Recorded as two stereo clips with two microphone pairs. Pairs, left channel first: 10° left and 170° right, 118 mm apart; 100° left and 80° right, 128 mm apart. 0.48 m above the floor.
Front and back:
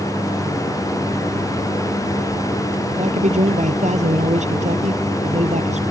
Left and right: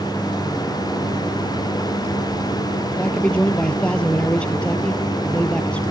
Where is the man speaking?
Straight behind.